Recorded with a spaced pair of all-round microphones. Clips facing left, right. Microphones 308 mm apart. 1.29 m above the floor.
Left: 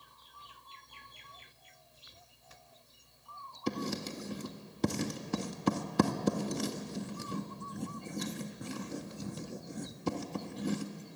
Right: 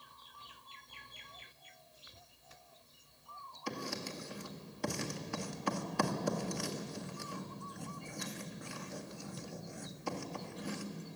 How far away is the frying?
I don't hear frying.